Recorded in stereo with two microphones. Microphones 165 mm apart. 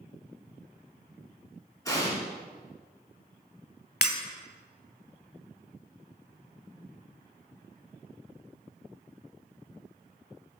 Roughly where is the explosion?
Centre.